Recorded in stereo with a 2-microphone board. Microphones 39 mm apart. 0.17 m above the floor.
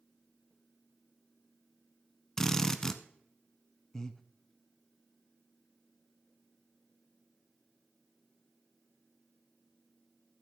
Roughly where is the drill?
Centre.